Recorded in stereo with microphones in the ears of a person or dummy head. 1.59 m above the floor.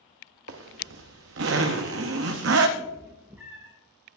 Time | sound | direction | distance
0.5 | a zipper | 75° right (ahead or behind) | 0.8 m
2.8 | a cat meowing | 10° right (ahead or behind) | 0.9 m